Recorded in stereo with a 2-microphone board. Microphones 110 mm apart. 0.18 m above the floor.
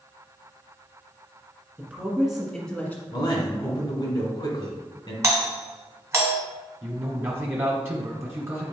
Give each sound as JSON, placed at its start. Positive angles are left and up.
{"t": 1.8, "sound": "a woman speaking", "side_deg": -15, "distance_m": 2.0}
{"t": 3.1, "sound": "a man speaking", "side_deg": 40, "distance_m": 1.6}
{"t": 5.2, "sound": "a doorbell", "side_deg": -30, "distance_m": 1.6}
{"t": 6.8, "sound": "a man speaking", "side_deg": -25, "distance_m": 1.1}